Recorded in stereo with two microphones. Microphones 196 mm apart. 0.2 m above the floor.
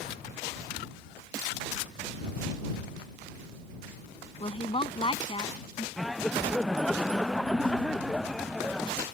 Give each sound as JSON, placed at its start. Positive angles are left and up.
{"t": 4.4, "sound": "a woman speaking", "side_deg": 30}
{"t": 6.0, "sound": "laughter", "side_deg": 0}